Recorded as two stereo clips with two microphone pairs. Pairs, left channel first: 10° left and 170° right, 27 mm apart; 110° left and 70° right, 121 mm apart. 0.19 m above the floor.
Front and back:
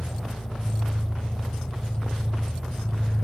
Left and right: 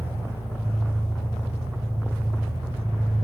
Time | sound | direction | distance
0.0 | an engine running | 30° right | 7 m